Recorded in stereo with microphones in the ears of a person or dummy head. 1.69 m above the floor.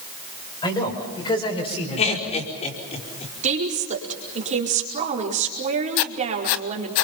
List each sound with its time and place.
0.6 s a man speaking: 20° left (ahead or behind), 6.5 m; by 2.4 s 30° left (ahead or behind), 5 m
2.0 s laughter: 30° left (ahead or behind), 5 m
3.4 s a woman speaking: 40° right (ahead or behind), 4.5 m
6.0 s writing: 70° left (ahead or behind), 1.1 m